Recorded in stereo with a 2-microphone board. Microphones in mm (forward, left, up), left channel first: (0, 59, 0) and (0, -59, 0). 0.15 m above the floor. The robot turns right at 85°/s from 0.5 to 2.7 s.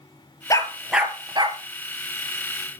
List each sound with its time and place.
0.5 s a dog barking: 30° left (ahead or behind), 1.4 m; by 1.6 s 55° right (ahead or behind), 1.4 m